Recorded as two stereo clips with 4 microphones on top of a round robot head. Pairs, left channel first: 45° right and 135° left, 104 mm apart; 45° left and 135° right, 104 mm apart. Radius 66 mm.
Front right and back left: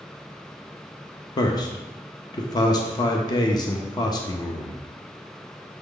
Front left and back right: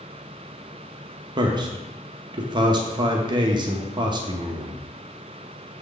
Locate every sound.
1.4 s a man speaking: 95° right, 0.9 m